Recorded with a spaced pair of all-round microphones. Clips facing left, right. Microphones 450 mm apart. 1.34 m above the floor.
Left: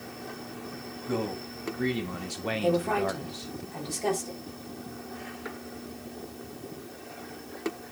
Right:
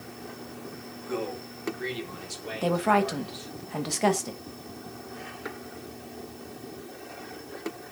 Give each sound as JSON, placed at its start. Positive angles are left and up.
{"t": 1.1, "sound": "a man speaking", "side_deg": 60, "distance_m": 2.0}
{"t": 2.6, "sound": "a woman speaking", "side_deg": -80, "distance_m": 1.6}